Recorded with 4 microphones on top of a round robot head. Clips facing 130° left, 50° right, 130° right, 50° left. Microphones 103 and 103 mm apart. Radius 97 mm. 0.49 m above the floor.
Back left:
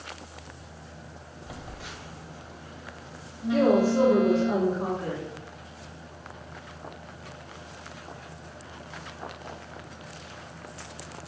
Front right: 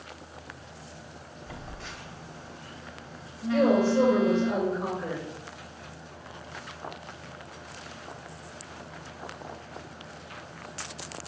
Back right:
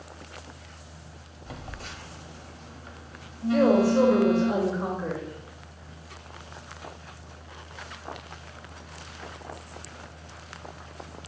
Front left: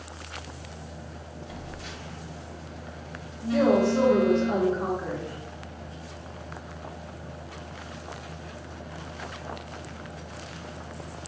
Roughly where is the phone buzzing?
Behind right.